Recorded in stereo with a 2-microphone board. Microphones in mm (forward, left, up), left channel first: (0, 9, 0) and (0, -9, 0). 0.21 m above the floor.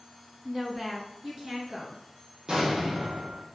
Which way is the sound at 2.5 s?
40° right (ahead or behind).